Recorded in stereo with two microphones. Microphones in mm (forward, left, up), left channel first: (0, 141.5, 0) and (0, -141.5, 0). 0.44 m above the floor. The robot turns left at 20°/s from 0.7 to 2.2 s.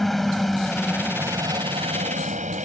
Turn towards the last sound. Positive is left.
turn(degrees=-30)